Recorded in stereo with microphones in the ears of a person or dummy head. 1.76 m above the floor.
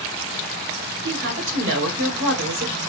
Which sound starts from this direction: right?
A woman speaking, at 1.0 s.